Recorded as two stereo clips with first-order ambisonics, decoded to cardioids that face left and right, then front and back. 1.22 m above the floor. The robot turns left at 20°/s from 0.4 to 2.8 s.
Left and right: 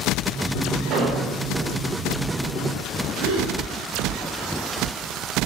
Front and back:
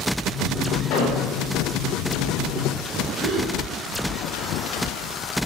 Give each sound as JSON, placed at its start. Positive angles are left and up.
{"t": 0.9, "sound": "an explosion", "azimuth_deg": -35, "distance_m": 4.0}
{"t": 3.2, "sound": "a gasp", "azimuth_deg": -115, "distance_m": 3.0}